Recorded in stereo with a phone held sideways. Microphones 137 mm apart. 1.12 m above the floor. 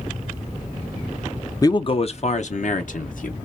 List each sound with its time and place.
1.6 s a man speaking: 25° left (ahead or behind), 0.5 m; by 3.4 s 70° left (ahead or behind), 1.5 m